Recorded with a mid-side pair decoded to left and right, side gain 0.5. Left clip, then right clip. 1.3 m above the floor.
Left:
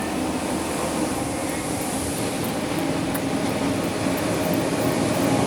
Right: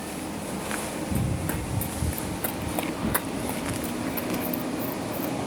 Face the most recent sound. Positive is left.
turn(degrees=-30)